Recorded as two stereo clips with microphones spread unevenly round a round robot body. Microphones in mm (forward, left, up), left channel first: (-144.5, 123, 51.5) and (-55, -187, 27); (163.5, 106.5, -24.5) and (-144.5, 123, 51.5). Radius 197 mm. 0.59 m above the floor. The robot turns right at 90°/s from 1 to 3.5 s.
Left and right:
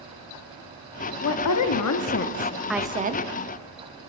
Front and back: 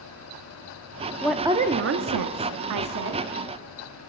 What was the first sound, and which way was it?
A woman speaking, 65° left.